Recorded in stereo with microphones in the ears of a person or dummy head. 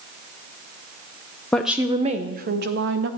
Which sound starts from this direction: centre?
A woman speaking, at 1.5 s.